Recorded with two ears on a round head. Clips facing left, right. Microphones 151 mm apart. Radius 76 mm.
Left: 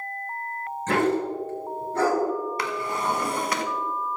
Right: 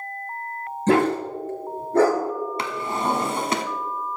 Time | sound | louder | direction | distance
0.9 | a dog barking | right 3 dB | 30° right (ahead or behind) | 3.5 m
2.6 | a drawer | right 2 dB | 25° right (ahead or behind) | 1.0 m